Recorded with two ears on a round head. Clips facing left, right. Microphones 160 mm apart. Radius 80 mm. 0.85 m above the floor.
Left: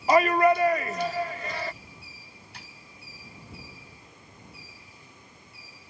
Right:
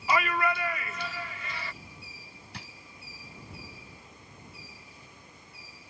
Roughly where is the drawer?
Right.